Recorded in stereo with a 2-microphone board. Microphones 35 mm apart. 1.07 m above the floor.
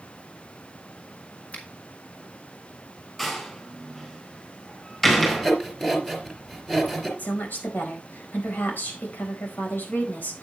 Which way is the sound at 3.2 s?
10° left (ahead or behind).